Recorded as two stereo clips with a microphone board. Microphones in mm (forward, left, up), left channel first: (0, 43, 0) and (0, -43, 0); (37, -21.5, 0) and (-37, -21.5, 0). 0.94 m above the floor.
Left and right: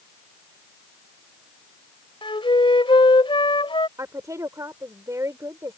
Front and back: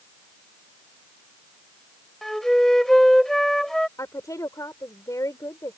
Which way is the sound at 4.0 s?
40° right.